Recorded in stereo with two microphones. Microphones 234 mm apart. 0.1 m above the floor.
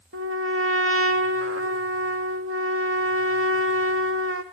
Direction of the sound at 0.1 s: 65° right (ahead or behind).